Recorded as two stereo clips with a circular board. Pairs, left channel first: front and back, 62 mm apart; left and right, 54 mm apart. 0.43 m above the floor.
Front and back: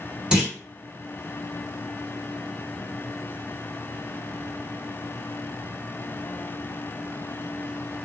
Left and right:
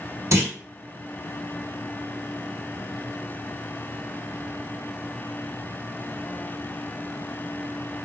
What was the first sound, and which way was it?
A clunk, 110° right.